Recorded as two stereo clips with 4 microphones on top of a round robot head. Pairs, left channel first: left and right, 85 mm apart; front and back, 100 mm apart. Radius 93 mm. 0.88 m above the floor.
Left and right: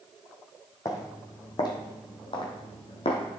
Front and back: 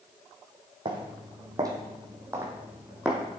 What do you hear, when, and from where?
0.8 s footsteps: 140° left, 2 m; by 3.4 s 95° left, 1.8 m